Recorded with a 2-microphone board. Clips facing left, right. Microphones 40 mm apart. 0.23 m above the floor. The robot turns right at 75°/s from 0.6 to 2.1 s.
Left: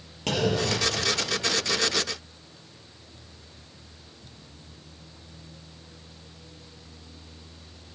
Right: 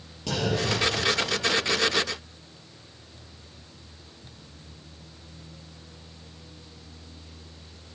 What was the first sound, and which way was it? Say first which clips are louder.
A clunk: left 1 dB; 60° left (ahead or behind).